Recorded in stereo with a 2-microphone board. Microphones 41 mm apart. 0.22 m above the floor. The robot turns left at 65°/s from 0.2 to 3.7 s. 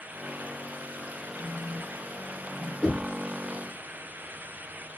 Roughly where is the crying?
I don't hear crying.